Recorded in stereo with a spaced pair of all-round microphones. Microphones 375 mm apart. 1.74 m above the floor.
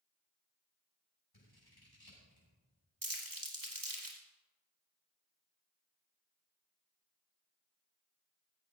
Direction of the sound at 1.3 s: 65° left (ahead or behind).